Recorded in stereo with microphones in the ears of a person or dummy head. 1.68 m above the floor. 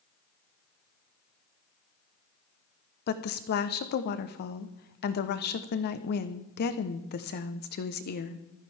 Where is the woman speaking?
50° left (ahead or behind), 1.0 m.